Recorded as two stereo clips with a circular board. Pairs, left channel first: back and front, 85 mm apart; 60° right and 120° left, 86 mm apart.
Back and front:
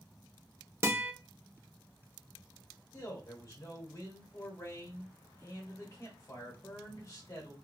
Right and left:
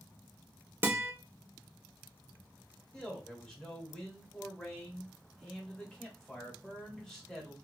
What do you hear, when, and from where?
0.8 s a guitar: 55° left, 0.6 m
2.9 s a man speaking: 140° right, 1.3 m